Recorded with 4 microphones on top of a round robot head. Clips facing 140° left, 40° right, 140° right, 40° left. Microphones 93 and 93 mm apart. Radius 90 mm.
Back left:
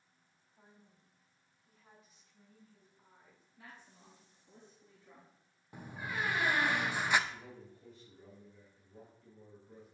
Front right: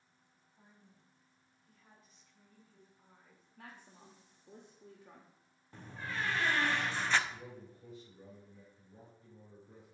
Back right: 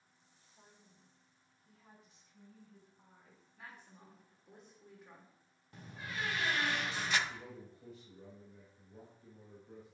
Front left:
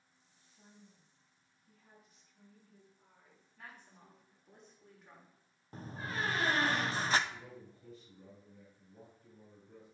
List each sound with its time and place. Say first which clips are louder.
0.6 s a woman speaking: back left 1 dB, front left 3 dB; 150° right, 1.9 m; by 4.6 s 135° right, 5.5 m
3.6 s a woman speaking: front right 2 dB, even; 55° right, 1.4 m
5.7 s a door slam: back left 1 dB, front left 4 dB; 70° left, 0.6 m
7.3 s a man speaking: front right 1 dB, back right 1 dB; 115° right, 3.5 m